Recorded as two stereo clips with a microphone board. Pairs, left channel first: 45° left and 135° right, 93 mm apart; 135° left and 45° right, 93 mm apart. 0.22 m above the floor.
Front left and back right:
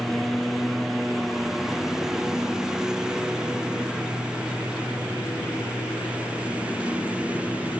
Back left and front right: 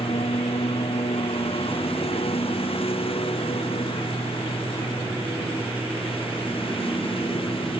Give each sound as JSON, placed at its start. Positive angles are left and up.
{"t": 0.0, "sound": "a lawn mower", "azimuth_deg": 135}